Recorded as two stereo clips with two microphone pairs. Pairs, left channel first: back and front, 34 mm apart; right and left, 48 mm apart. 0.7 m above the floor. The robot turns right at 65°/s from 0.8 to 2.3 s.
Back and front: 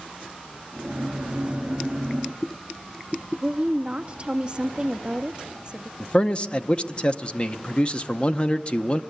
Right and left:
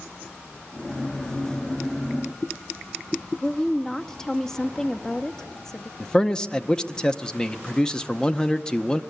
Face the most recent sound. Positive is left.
turn(degrees=-155)